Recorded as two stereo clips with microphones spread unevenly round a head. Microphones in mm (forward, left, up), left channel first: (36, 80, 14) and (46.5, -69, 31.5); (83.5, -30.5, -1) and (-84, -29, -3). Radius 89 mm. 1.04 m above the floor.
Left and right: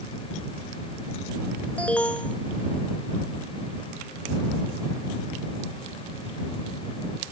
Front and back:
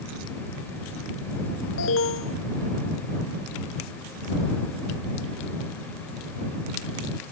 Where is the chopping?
I don't hear chopping.